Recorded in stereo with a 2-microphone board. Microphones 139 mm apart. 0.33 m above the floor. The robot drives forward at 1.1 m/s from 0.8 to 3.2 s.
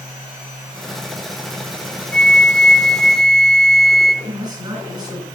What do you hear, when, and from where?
2.1 s a flute: 5° left (ahead or behind), 0.6 m
4.2 s a man speaking: 30° right (ahead or behind), 3.5 m